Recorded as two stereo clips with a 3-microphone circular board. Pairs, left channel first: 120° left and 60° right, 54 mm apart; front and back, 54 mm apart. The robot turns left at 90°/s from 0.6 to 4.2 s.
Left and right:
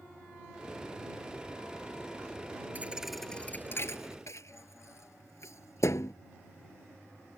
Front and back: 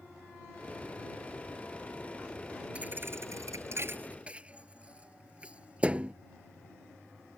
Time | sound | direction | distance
2.8 | a thud | 115° right | ?